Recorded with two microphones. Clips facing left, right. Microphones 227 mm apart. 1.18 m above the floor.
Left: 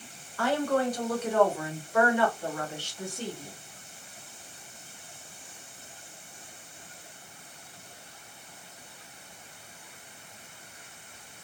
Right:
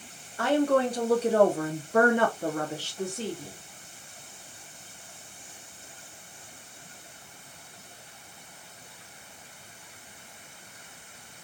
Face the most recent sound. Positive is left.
turn(degrees=-20)  # may be behind; listen again after turning